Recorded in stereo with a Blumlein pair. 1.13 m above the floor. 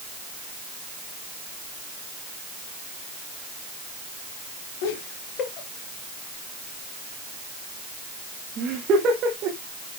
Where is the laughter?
50° left, 2 m; by 9.6 s 35° right, 3 m.